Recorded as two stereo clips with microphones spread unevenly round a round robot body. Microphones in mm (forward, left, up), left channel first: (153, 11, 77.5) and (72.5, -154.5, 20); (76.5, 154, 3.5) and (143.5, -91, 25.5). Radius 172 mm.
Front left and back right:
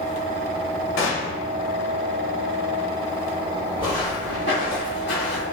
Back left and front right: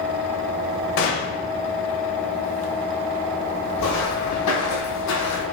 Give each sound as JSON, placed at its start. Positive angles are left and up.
{"t": 1.0, "sound": "a gunshot", "azimuth_deg": 85, "distance_m": 0.8}
{"t": 3.8, "sound": "footsteps", "azimuth_deg": 145, "distance_m": 1.7}